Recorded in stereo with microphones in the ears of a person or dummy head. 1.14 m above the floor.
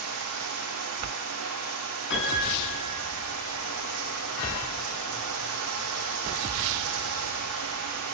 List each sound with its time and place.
0.0 s running water: 75° right (ahead or behind), 7.5 m
2.1 s a piano: 60° left (ahead or behind), 7.5 m